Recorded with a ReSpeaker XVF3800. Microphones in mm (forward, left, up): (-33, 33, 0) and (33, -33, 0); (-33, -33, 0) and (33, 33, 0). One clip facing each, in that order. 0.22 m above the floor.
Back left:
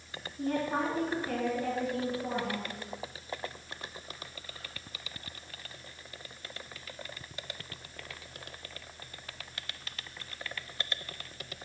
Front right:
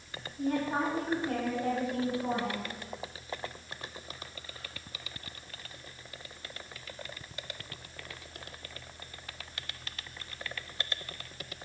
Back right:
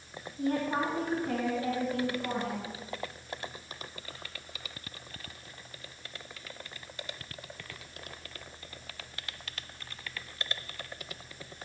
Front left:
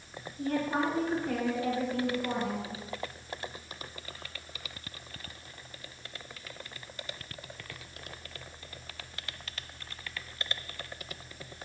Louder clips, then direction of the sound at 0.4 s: Front right 1 dB, even; 115° right.